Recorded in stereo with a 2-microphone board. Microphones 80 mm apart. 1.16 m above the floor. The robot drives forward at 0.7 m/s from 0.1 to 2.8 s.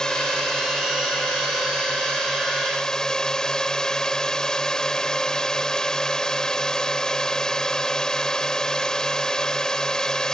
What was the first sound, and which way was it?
A drone, 10° left (ahead or behind).